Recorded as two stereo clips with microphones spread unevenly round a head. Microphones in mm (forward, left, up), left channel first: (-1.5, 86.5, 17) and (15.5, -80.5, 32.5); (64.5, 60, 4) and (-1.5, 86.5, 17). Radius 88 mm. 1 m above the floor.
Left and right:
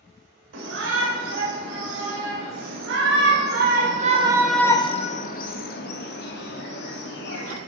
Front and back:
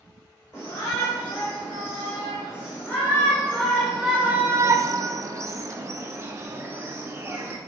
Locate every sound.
0.5 s a shout: 85° right, 4.5 m; by 7.6 s 100° left, 3.5 m